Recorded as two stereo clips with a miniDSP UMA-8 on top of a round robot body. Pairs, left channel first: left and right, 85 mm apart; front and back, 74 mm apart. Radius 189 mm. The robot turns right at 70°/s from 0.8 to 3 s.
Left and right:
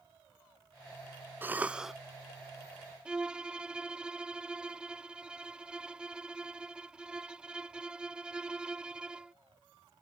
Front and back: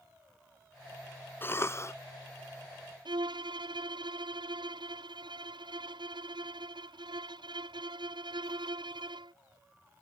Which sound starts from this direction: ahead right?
A cough, at 1.4 s.